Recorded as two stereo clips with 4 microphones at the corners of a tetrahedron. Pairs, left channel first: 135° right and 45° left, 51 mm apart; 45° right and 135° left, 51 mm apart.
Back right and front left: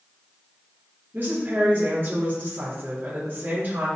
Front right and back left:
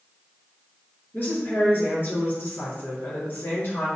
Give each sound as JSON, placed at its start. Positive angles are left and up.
{"t": 1.1, "sound": "a woman speaking", "azimuth_deg": 5, "distance_m": 3.0}